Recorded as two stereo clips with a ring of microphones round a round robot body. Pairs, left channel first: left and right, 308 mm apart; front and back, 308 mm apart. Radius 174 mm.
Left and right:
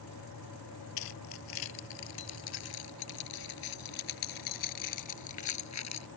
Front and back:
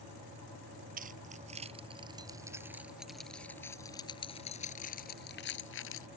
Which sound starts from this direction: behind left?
Keys jangling, at 1.0 s.